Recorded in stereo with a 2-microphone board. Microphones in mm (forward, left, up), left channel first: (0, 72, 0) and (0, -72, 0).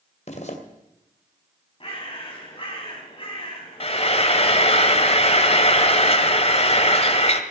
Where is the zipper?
55° left (ahead or behind), 2.5 m.